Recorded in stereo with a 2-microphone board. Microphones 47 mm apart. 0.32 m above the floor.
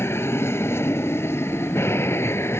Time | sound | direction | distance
0.0 | an aircraft | 60° left (ahead or behind) | ?